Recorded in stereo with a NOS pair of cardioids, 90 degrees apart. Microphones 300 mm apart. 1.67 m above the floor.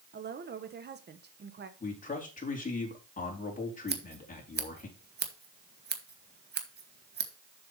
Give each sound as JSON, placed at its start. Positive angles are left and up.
{"t": 0.1, "sound": "a woman speaking", "azimuth_deg": -35, "distance_m": 1.7}
{"t": 1.8, "sound": "a man speaking", "azimuth_deg": 25, "distance_m": 4.0}
{"t": 3.9, "sound": "scissors", "azimuth_deg": -35, "distance_m": 1.7}